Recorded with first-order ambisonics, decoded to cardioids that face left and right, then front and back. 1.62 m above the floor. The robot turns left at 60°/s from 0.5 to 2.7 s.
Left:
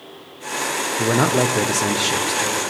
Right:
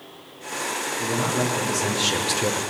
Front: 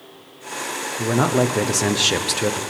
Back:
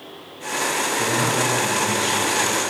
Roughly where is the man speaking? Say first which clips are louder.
Left 7 dB, front 5 dB; left.